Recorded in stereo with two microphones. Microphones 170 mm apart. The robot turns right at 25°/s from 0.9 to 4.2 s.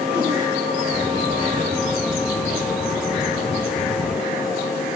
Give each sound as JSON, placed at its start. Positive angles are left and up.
{"t": 0.1, "sound": "a whoosh", "side_deg": -10, "distance_m": 5.5}